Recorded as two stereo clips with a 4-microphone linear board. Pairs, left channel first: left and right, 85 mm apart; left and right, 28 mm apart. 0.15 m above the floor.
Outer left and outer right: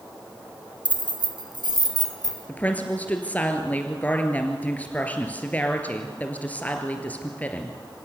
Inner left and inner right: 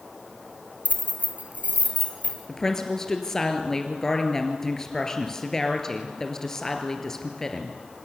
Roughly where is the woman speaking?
Centre.